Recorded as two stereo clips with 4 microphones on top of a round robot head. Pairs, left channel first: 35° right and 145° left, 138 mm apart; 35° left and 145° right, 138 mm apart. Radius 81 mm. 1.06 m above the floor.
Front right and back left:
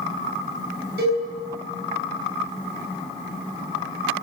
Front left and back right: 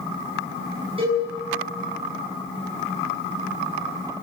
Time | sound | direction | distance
1.0 | a cowbell | 160° left | 7.5 m